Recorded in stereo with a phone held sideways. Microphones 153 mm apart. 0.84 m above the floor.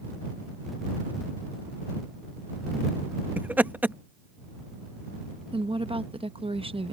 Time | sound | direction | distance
3.4 | laughter | 10° right (ahead or behind) | ?
5.5 | a woman speaking | 35° right (ahead or behind) | ?